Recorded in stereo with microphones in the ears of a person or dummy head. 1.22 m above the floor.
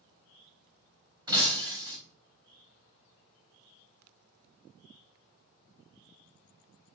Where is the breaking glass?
25° right (ahead or behind), 4.5 m.